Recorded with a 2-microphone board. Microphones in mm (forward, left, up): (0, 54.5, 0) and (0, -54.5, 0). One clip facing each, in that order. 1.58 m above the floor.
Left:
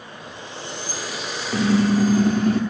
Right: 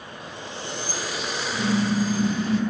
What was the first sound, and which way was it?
A car horn, 65° left (ahead or behind).